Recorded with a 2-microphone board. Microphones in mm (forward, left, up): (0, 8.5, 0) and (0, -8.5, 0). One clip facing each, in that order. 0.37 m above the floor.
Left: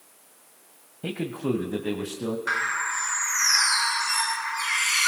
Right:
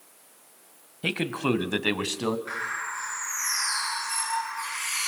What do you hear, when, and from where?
1.0 s a man speaking: 65° right (ahead or behind), 1.7 m; by 2.4 s 70° right (ahead or behind), 2.5 m
2.5 s a bird: 55° left (ahead or behind), 4 m